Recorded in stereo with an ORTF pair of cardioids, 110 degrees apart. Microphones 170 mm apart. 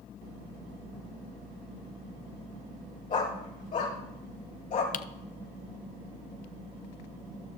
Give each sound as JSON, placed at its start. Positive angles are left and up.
{"t": 3.1, "sound": "a dog barking", "azimuth_deg": 50, "distance_m": 3.0}
{"t": 4.9, "sound": "typing on a keyboard", "azimuth_deg": 50, "distance_m": 0.6}